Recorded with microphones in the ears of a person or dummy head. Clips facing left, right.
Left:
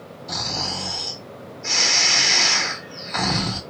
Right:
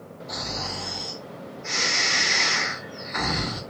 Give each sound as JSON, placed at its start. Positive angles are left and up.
{"t": 0.3, "sound": "snoring", "side_deg": 70, "distance_m": 1.2}